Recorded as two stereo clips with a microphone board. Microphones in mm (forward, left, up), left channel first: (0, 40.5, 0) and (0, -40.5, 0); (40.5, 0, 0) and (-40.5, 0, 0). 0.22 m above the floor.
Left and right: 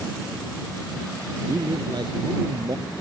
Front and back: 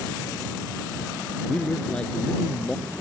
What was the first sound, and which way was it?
A man speaking, 75° right.